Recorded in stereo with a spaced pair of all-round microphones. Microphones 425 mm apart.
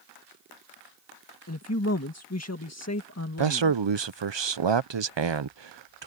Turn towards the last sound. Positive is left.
turn(degrees=-85)